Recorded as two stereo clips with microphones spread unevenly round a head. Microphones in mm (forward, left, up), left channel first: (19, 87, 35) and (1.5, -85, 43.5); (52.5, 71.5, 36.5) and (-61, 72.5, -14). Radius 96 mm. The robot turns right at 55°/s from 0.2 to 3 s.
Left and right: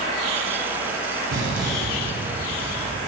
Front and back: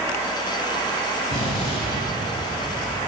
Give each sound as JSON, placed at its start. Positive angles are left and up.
{"t": 1.3, "sound": "an explosion", "azimuth_deg": -30, "distance_m": 3.5}